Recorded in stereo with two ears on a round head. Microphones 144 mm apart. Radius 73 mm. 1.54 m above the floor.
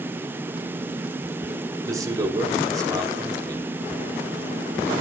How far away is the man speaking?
About 4 m.